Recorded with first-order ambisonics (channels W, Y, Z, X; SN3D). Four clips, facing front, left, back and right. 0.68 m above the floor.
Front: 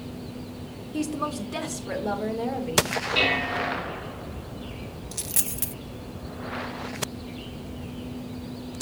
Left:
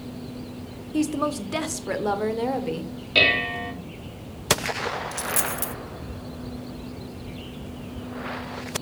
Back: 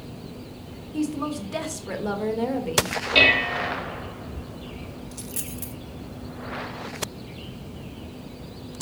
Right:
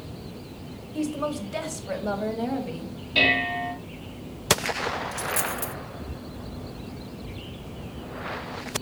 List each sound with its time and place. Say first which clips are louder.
0.9 s a woman speaking: left 4 dB, back 1 dB; 75° left, 1.3 m; by 2.9 s 115° left, 1.9 m
3.1 s dishes clattering: left 2 dB, back 7 dB; 140° left, 1.7 m
5.1 s a dropped coin: even, front 6 dB; 35° left, 0.6 m